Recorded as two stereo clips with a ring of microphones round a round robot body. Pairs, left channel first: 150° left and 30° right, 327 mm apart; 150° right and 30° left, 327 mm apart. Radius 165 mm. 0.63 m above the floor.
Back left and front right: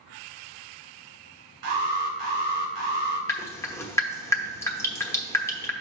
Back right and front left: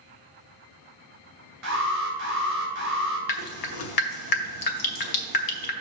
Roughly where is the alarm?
Ahead right.